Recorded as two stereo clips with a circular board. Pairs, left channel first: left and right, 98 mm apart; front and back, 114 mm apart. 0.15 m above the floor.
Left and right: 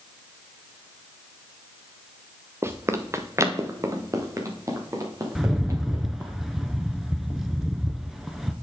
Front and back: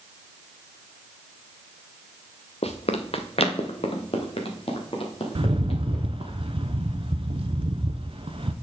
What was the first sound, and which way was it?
Running footsteps, 25° right.